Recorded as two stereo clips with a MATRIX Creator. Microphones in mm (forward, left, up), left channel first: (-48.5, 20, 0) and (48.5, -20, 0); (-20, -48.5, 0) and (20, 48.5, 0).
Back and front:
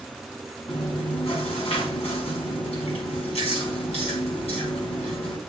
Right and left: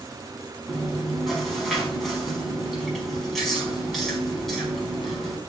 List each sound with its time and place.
0.7 s chewing: 160° left, 4.5 m